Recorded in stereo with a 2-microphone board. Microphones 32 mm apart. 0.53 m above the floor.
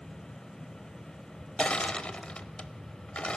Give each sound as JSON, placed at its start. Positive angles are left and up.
{"t": 1.6, "sound": "crushing", "side_deg": 35, "distance_m": 0.7}